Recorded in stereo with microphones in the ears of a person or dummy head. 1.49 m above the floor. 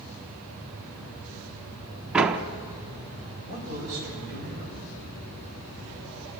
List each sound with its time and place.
2.1 s a door slam: 5° right (ahead or behind), 0.9 m
3.5 s a man speaking: 55° left (ahead or behind), 7 m